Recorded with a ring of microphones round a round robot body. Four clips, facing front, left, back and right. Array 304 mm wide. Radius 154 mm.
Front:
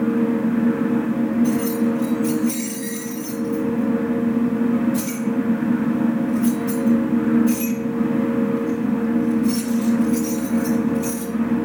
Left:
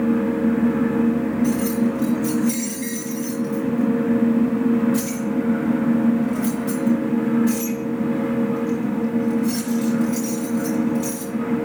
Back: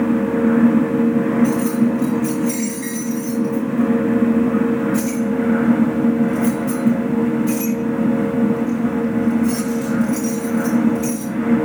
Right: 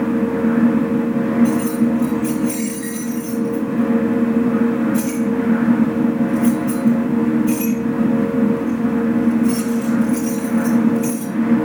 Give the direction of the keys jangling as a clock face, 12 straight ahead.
9 o'clock.